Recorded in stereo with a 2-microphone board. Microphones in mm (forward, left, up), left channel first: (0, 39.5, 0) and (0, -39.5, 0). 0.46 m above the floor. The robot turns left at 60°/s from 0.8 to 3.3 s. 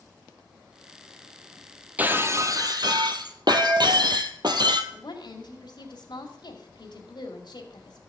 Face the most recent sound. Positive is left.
turn(degrees=65)  # may be behind; listen again after turning